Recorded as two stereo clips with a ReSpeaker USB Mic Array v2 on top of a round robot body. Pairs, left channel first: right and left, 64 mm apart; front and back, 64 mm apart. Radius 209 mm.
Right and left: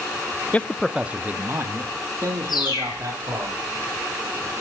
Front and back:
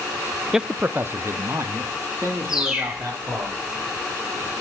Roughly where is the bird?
Right.